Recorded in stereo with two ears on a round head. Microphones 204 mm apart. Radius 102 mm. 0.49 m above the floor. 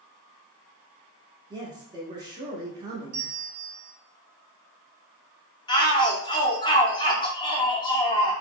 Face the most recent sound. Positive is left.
turn(degrees=20)  # may be behind; listen again after turning